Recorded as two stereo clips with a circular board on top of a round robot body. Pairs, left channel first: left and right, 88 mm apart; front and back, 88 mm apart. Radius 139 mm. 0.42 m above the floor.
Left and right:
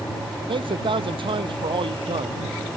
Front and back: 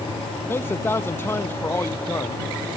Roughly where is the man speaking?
Ahead right.